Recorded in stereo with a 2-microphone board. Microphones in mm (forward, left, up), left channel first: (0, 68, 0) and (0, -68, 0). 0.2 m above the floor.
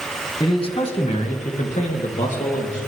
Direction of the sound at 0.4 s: 35° left (ahead or behind).